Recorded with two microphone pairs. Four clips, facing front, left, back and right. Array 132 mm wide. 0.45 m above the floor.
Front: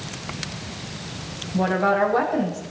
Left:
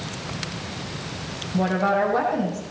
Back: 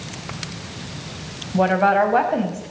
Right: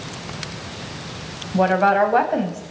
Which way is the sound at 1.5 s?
125° right.